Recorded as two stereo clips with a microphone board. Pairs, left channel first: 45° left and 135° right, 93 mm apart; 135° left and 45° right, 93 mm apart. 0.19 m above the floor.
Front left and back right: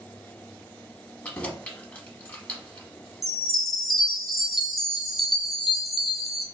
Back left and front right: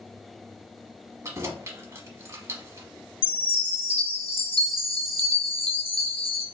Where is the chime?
135° left, 1.3 m.